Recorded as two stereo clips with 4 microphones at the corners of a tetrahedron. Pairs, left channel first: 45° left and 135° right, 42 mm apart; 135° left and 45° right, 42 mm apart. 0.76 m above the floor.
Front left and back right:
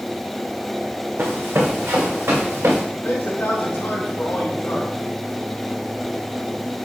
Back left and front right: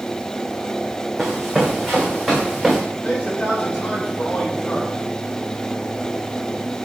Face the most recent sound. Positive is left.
turn(degrees=85)